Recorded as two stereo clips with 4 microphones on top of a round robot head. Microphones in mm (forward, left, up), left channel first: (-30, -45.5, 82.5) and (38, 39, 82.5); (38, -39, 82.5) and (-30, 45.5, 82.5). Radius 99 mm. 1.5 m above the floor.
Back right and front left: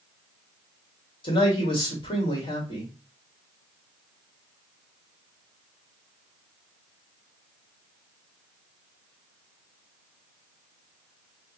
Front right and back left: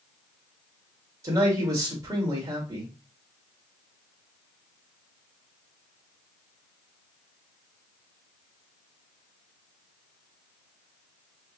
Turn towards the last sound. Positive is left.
turn(degrees=-170)